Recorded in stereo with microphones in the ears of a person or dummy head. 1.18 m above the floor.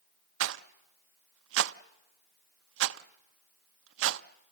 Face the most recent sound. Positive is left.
turn(degrees=-80)